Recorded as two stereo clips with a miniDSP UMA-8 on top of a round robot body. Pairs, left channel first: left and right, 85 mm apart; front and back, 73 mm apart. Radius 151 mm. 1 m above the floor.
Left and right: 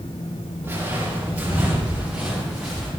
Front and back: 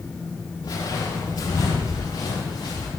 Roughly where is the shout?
I don't hear a shout.